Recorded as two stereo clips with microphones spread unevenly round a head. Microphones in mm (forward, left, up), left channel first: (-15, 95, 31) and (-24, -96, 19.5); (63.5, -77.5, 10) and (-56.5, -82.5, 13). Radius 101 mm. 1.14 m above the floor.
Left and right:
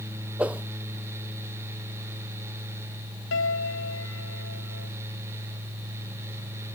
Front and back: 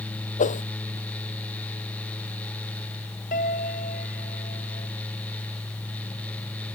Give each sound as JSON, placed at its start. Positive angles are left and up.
{"t": 0.4, "sound": "a whoosh", "azimuth_deg": -10}
{"t": 3.3, "sound": "a piano", "azimuth_deg": 55}